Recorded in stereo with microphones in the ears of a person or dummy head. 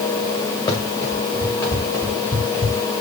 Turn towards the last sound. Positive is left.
turn(degrees=15)  # may be behind; listen again after turning